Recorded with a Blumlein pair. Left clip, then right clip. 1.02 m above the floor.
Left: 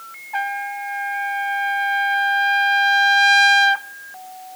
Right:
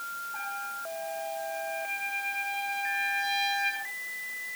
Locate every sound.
0.3 s a trumpet: 45° left, 1.0 m